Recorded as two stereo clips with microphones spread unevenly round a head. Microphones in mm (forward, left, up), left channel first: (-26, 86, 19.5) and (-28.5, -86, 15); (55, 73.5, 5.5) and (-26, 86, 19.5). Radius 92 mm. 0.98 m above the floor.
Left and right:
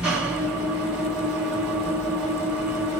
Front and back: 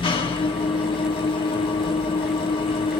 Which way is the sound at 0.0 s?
5° right.